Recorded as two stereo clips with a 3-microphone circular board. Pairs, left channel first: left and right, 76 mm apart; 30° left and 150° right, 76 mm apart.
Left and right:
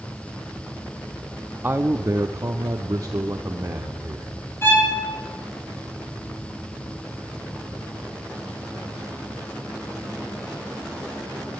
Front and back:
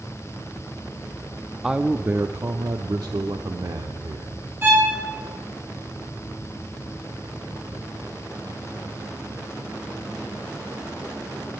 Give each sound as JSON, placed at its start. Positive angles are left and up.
{"t": 1.6, "sound": "a man speaking", "azimuth_deg": -70, "distance_m": 0.6}
{"t": 4.6, "sound": "a violin", "azimuth_deg": 150, "distance_m": 8.5}